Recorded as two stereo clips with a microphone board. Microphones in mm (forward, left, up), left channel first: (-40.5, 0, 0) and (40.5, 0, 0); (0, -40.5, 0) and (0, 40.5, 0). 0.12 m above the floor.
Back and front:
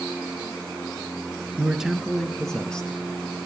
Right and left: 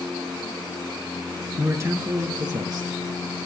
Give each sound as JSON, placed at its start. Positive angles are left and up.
{"t": 1.6, "sound": "a man speaking", "azimuth_deg": 65, "distance_m": 1.6}